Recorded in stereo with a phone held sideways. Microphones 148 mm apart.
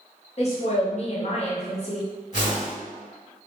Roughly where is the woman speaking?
Left.